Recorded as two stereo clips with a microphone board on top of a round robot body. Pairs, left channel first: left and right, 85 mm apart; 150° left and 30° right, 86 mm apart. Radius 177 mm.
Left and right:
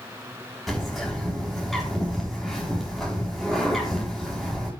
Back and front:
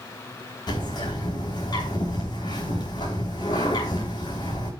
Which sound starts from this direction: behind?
A bird, at 0.7 s.